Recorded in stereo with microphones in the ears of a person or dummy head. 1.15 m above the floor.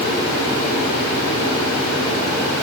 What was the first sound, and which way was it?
Only background noise.